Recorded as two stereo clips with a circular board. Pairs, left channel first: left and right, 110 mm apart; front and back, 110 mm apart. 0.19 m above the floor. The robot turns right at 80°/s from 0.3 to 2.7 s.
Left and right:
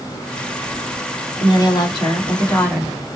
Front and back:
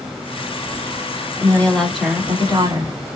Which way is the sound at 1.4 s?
50° left.